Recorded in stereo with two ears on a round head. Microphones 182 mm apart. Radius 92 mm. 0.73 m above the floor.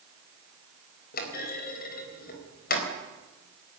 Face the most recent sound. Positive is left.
turn(degrees=45)  # may be behind; listen again after turning